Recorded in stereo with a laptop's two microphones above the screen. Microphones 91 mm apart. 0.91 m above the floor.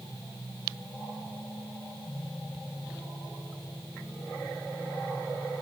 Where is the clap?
I don't hear a clap.